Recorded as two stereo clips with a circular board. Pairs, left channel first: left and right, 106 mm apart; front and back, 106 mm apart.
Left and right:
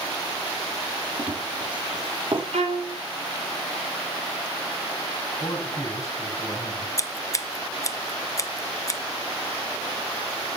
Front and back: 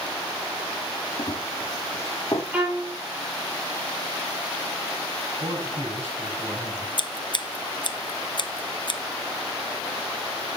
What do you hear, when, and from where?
1.2 s running footsteps: 50° right, 3 m
2.5 s a violin: 100° right, 3 m
5.4 s a man speaking: 150° left, 8 m
7.0 s scissors: 35° left, 0.7 m